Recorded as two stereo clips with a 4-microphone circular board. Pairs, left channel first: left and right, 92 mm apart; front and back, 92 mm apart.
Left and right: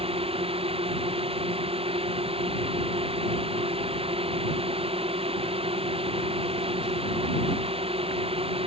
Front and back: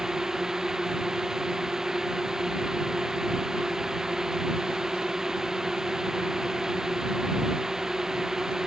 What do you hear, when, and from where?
0.0 s a drone: 95° right